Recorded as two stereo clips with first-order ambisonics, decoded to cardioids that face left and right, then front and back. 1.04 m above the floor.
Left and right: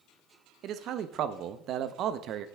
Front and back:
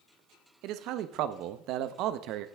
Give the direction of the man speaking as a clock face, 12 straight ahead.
5 o'clock.